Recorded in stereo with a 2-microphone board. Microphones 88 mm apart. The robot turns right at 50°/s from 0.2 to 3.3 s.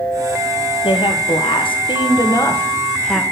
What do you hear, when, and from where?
0.8 s a woman speaking: 65° left, 0.8 m; by 3.2 s 175° right, 0.8 m